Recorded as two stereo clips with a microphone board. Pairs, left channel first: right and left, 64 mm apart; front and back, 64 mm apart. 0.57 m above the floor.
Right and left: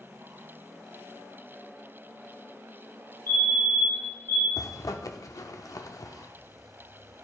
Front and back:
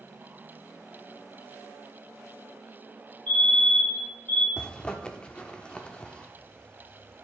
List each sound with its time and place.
3.3 s a fire alarm: 60° right, 2.5 m
4.6 s a zipper: 75° right, 0.5 m